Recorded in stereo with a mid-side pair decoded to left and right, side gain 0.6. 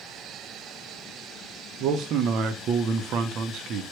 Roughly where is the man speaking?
Ahead right.